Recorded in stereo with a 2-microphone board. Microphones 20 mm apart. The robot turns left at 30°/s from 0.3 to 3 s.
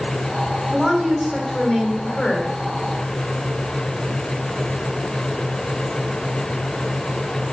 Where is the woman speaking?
175° right, 4 m; by 2.5 s 130° left, 4 m.